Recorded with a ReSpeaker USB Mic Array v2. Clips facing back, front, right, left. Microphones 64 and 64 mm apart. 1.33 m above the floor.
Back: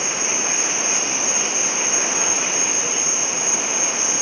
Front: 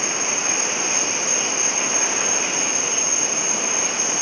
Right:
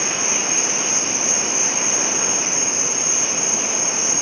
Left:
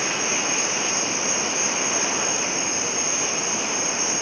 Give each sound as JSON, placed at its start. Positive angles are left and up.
{"t": 0.0, "sound": "an insect", "azimuth_deg": 40, "distance_m": 0.7}